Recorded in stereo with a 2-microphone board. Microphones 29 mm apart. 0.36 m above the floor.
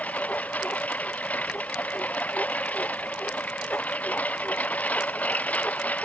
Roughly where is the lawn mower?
Left.